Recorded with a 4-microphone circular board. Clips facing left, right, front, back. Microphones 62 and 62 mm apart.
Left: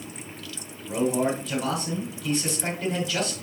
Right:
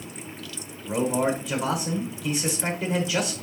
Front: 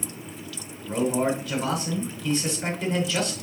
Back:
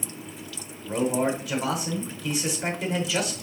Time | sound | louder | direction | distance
0.8 | a man speaking | even, front 1 dB | 135° right | 1.1 m